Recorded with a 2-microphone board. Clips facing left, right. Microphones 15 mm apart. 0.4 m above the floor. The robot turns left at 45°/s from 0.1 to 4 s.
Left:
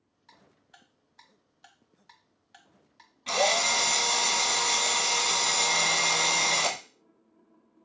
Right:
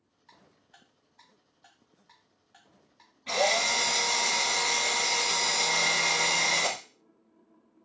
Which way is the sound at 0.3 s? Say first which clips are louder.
Left 1 dB; 10° left (ahead or behind).